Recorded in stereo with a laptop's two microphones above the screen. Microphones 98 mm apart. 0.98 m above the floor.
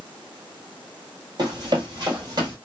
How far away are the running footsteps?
About 1.3 m.